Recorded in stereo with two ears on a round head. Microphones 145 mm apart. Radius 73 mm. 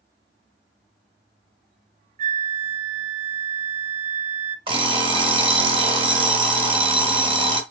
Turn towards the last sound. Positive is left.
turn(degrees=-35)  # may be behind; listen again after turning